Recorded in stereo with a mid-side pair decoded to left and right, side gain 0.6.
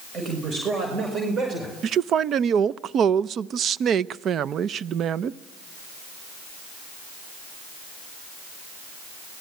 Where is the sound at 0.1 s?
40° right, 6.5 m; by 1.7 s 35° right, 4.5 m.